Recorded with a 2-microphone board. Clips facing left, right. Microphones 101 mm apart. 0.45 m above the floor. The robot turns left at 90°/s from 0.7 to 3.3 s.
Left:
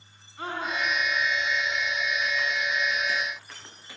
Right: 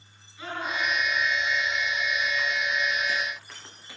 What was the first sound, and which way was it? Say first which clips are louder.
A scream: left 1 dB; 45° left (ahead or behind).